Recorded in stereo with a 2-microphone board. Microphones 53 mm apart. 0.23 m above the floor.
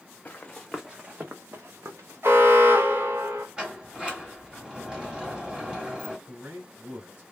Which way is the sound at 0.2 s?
25° left (ahead or behind).